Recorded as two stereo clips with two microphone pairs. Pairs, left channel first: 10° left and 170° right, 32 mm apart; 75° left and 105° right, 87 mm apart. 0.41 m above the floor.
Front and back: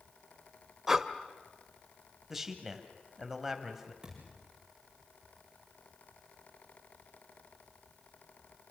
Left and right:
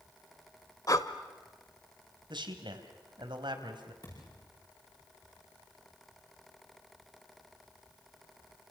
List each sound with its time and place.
0.9 s breathing: 115° left, 1.2 m
2.3 s a man speaking: 90° right, 3 m
4.0 s a thud: 120° left, 10 m